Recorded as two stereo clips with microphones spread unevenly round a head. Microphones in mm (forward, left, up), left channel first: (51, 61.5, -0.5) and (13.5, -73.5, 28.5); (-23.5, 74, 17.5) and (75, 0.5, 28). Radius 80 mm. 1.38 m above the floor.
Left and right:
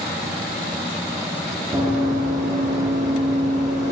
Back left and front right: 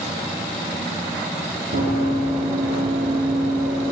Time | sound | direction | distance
1.7 | running footsteps | 55° right | 2.5 m